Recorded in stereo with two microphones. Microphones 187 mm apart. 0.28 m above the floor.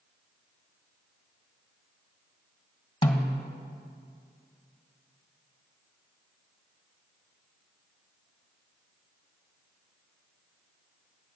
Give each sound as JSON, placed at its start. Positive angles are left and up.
{"t": 3.0, "sound": "a snare drum", "side_deg": 25, "distance_m": 1.4}